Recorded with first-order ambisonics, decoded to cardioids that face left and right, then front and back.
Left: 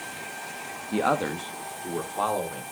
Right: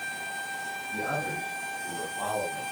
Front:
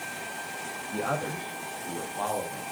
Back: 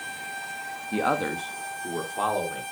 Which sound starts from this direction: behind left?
A man speaking, at 0.9 s.